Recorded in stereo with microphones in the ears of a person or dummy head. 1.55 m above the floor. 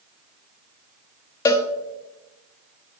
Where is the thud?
I don't hear a thud.